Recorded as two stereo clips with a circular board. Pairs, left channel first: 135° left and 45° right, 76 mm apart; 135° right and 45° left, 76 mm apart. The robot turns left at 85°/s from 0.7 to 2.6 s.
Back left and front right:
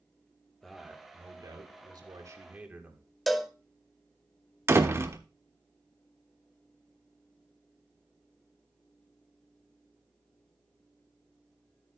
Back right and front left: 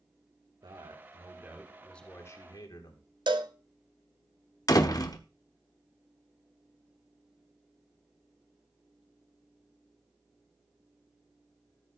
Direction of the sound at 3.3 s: 45° left.